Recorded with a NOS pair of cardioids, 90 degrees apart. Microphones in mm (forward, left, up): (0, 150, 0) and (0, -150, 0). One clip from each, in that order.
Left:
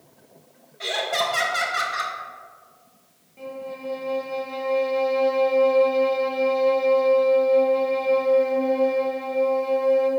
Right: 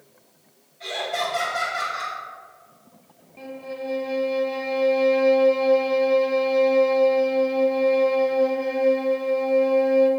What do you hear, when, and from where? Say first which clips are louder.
0.8 s laughter: left 3 dB; 65° left, 2 m
3.4 s a violin: right 1 dB; 35° right, 1.8 m